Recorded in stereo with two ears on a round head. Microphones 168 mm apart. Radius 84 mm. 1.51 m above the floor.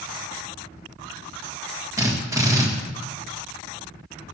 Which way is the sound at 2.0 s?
20° right (ahead or behind).